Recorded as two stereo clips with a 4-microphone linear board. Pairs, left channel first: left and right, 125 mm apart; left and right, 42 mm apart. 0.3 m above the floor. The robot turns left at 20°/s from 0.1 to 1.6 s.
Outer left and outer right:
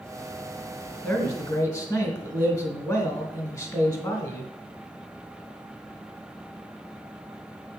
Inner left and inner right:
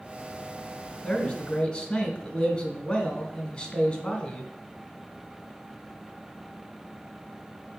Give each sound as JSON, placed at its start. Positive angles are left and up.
{"t": 1.0, "sound": "a man speaking", "side_deg": 20, "distance_m": 1.7}